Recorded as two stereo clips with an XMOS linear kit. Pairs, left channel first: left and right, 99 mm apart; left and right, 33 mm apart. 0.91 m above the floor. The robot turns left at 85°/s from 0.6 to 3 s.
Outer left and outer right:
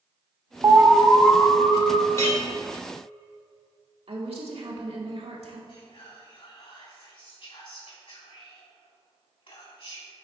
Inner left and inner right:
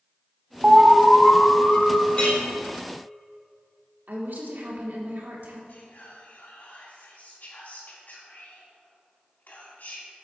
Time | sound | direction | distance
0.6 | an alarm | 140° right | 0.7 m
2.1 | a clink | 30° left (ahead or behind) | 2.5 m
4.1 | a woman speaking | 70° right (ahead or behind) | 1.8 m
5.7 | whispering | 65° left (ahead or behind) | 2.5 m